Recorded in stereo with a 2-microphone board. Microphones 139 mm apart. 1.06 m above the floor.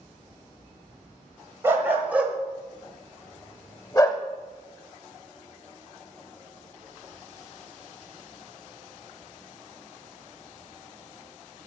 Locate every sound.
1.6 s a dog barking: 15° right (ahead or behind), 1.4 m; by 4.2 s 30° left (ahead or behind), 1.1 m